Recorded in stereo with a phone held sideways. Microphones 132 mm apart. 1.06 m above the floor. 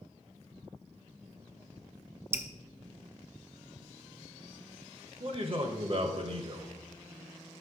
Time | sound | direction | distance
2.3 | dripping | 20° right (ahead or behind) | 0.5 m
5.2 | a man speaking | 45° right (ahead or behind) | 0.9 m